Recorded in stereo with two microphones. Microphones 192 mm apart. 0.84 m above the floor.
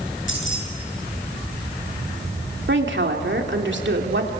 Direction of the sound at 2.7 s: 75° right (ahead or behind).